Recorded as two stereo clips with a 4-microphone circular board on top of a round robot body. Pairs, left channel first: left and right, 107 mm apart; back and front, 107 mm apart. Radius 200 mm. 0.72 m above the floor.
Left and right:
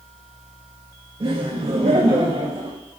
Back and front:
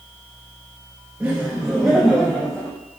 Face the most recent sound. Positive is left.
turn(degrees=-100)